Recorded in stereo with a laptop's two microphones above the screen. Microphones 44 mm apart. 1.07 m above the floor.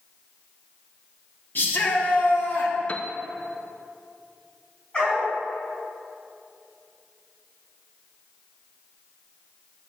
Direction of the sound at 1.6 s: 50° left (ahead or behind).